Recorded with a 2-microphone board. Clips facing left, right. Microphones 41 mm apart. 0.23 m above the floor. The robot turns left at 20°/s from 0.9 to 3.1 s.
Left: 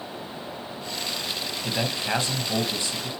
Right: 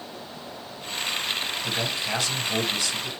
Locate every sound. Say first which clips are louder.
1.6 s a man speaking: left 4 dB; 30° left (ahead or behind), 1.0 m; by 3.1 s 25° left (ahead or behind), 1.0 m